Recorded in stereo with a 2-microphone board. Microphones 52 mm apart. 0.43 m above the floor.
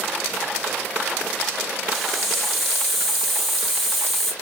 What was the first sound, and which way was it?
A hiss, centre (ahead or behind).